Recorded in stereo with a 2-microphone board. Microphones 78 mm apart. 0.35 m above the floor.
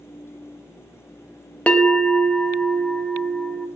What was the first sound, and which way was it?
A bell, 15° left (ahead or behind).